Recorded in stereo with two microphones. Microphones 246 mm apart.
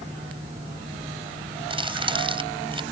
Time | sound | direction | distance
1.7 | crumpling | 20° right (ahead or behind) | ?